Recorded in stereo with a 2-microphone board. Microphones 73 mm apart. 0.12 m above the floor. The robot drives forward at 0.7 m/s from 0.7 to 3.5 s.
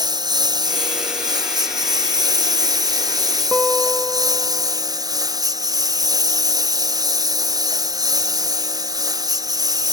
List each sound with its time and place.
0.0 s a lawn mower: 65° right (ahead or behind); by 9.9 s 60° right (ahead or behind)
3.5 s a guitar: centre (ahead or behind)